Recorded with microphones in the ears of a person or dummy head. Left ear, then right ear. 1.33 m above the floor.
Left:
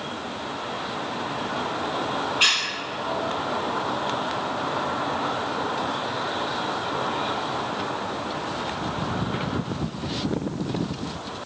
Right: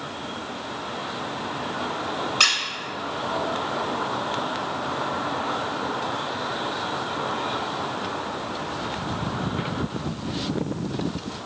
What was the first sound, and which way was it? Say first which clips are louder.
A squeak: right 1 dB; 70° right (ahead or behind).